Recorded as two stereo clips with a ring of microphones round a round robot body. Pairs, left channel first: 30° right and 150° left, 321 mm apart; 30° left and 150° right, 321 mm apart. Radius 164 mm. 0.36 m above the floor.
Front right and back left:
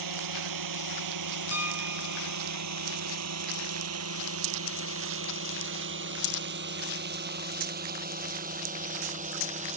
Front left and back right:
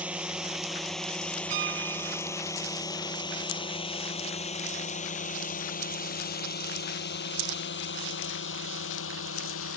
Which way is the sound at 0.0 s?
125° left.